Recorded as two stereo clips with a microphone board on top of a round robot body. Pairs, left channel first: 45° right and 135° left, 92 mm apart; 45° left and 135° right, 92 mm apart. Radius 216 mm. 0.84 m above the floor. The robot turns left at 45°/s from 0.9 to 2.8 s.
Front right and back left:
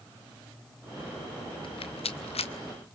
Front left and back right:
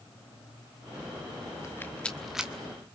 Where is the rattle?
15° right, 1.1 m; by 2.5 s 55° right, 1.1 m.